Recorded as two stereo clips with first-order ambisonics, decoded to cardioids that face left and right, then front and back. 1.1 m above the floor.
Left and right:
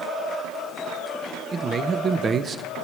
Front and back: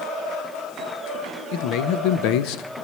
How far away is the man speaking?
About 0.7 m.